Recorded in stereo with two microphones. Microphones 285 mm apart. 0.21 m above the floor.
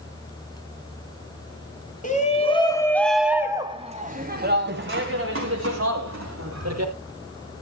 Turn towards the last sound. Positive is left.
turn(degrees=-65)  # may be behind; listen again after turning